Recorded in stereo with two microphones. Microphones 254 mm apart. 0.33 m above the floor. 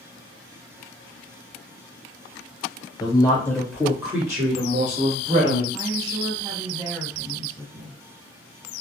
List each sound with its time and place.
3.0 s a woman speaking: 15° left (ahead or behind), 1.0 m; by 5.6 s 25° right (ahead or behind), 1.5 m
5.7 s a woman speaking: 20° right (ahead or behind), 1.9 m